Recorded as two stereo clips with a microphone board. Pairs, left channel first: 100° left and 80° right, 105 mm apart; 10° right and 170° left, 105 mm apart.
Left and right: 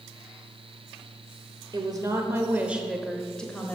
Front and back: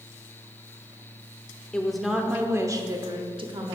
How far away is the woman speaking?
About 1.0 m.